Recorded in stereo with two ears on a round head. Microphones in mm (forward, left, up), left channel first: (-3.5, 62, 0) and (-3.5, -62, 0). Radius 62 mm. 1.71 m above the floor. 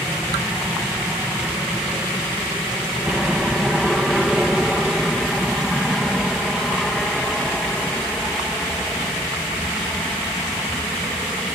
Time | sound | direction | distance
0.0 | an aircraft | 5° right (ahead or behind) | ?